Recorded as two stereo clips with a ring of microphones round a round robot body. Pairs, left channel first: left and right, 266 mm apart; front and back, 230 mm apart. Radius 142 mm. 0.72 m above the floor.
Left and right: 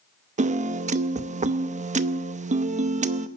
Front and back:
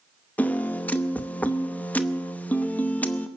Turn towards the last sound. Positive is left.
turn(degrees=-75)